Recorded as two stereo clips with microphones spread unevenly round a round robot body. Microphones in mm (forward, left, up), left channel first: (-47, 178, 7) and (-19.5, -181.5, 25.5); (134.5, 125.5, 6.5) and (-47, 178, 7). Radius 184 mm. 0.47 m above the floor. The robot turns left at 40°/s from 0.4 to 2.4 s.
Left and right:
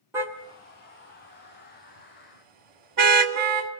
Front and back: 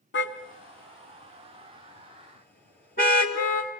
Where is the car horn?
Straight ahead, 2.5 m; by 3.7 s 80° right, 2.5 m.